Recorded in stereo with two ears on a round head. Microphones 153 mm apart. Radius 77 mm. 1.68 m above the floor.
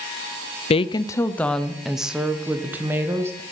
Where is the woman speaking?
40° left (ahead or behind), 0.5 m; by 3.4 s 15° right (ahead or behind), 1.8 m.